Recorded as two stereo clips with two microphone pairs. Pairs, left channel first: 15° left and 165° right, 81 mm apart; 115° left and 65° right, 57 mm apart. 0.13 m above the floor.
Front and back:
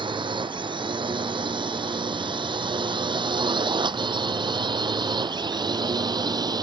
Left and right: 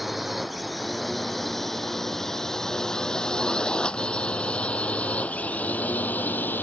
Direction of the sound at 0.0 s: 155° right.